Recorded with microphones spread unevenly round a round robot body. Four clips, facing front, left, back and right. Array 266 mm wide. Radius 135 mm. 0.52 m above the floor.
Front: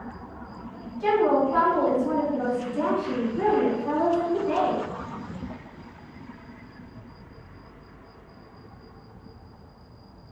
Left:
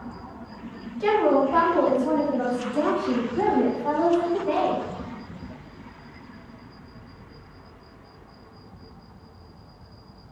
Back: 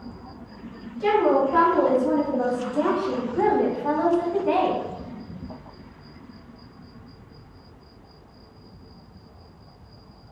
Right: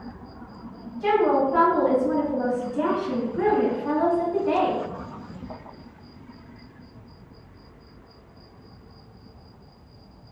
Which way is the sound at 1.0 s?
95° left.